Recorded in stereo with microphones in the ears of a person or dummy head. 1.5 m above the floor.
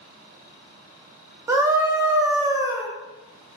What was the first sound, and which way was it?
A scream, 10° right (ahead or behind).